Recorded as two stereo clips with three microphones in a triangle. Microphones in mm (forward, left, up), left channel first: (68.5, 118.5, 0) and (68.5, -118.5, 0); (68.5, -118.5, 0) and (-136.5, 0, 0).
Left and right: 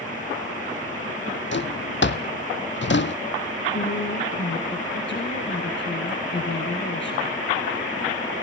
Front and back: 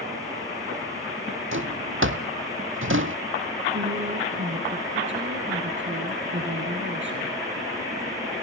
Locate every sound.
1.5 s a drawer: 125° left, 1.1 m
3.7 s a woman speaking: 120° left, 3.5 m